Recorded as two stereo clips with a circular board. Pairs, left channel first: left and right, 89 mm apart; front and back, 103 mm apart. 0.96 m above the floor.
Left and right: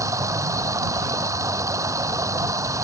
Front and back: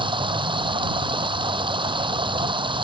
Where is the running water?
145° right.